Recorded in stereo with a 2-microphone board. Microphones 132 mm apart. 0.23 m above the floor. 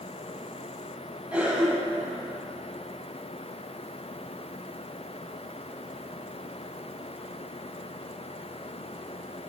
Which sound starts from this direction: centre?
A cough, at 1.3 s.